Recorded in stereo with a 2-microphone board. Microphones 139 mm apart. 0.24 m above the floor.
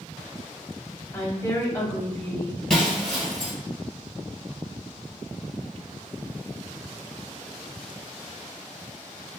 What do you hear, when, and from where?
1.1 s a woman speaking: 20° left (ahead or behind), 1.0 m
2.7 s breaking glass: 5° left (ahead or behind), 1.4 m